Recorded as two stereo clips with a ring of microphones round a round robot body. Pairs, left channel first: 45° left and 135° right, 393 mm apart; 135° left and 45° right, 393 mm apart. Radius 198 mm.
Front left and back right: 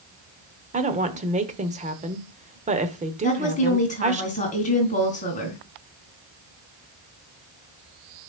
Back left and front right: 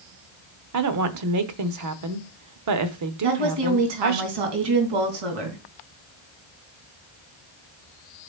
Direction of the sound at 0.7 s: 70° right.